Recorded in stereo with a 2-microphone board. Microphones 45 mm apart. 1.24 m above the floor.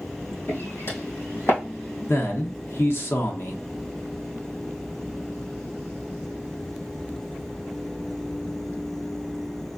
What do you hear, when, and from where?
0.5 s footsteps: 60° left (ahead or behind), 2.5 m; by 1.6 s 65° left (ahead or behind), 3 m
2.1 s a man speaking: 60° left (ahead or behind), 0.9 m